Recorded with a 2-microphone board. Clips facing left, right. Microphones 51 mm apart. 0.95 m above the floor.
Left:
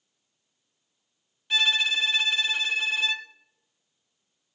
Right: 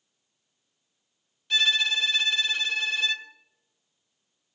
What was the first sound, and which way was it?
A violin, 20° left (ahead or behind).